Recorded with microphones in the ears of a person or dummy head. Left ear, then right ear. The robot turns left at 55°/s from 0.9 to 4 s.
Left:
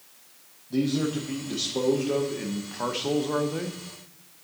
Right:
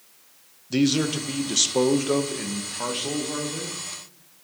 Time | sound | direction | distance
0.7 | a man speaking | 70° right | 0.8 m